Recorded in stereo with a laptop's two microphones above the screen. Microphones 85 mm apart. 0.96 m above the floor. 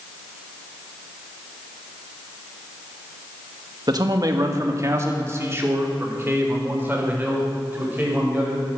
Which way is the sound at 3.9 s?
50° right (ahead or behind).